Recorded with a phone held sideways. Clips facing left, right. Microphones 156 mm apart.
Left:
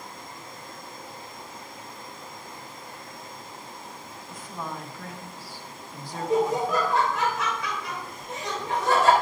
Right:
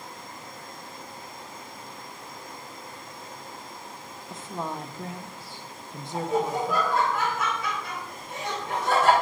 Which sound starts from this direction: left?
Laughter, at 6.1 s.